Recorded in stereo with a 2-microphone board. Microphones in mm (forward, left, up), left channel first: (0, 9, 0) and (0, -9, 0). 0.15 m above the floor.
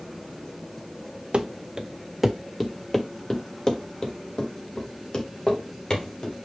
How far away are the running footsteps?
About 0.7 m.